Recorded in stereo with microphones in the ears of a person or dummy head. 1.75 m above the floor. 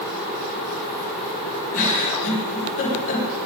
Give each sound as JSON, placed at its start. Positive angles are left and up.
{"t": 1.7, "sound": "a giggle", "side_deg": 75, "distance_m": 5.5}